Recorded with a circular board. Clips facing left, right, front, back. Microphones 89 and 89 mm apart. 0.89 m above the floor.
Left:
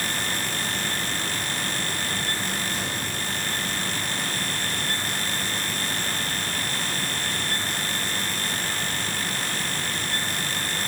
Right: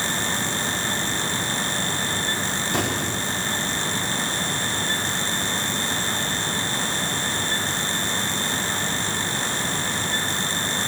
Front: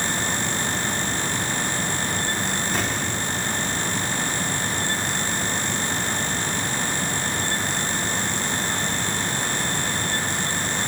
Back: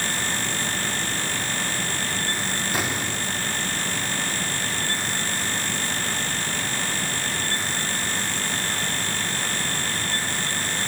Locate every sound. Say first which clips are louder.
2.7 s an explosion: right 6 dB, front 1 dB; 95° right, 3 m